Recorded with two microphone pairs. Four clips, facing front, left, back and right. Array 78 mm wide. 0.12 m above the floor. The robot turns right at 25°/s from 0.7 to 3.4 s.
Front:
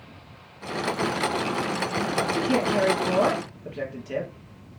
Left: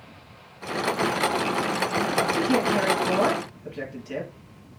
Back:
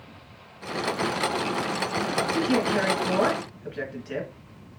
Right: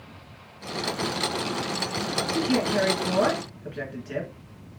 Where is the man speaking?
165° right, 2 m; by 4.3 s 140° right, 2 m.